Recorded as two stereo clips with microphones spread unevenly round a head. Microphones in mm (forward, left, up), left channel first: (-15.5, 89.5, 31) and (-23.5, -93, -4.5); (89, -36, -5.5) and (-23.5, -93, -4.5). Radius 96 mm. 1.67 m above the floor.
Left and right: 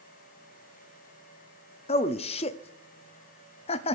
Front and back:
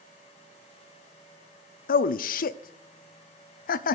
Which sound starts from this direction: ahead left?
A man speaking, at 1.9 s.